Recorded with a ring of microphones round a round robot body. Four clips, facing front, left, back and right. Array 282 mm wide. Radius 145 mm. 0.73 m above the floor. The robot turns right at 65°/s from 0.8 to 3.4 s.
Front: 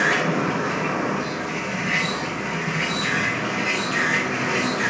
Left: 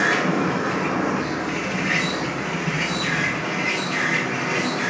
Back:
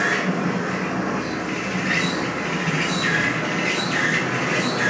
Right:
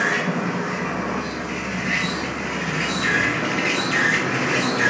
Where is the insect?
70° left, 2.5 m; by 4.9 s 120° right, 2.5 m.